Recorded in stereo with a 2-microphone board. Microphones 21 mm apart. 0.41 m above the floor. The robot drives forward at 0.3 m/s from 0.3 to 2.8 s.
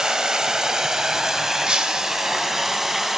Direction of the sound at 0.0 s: 45° right (ahead or behind).